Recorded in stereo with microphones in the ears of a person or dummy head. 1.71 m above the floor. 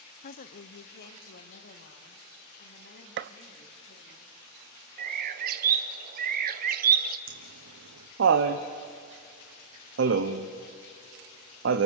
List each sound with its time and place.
0.2 s a woman speaking: 45° left (ahead or behind), 0.6 m; by 4.2 s 60° left (ahead or behind), 4.5 m
3.2 s a gunshot: 60° right (ahead or behind), 0.5 m
5.0 s a bird: 50° right (ahead or behind), 1.1 m
7.3 s laughter: 75° right (ahead or behind), 1.1 m